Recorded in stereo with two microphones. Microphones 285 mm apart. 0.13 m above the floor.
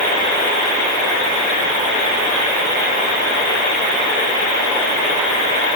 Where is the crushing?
No crushing in this recording.